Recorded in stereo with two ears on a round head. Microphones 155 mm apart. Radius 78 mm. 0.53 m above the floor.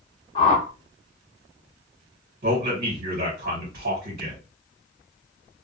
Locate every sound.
0.3 s a whoosh: 30° left (ahead or behind), 0.7 m
2.4 s a man speaking: 45° right (ahead or behind), 1.3 m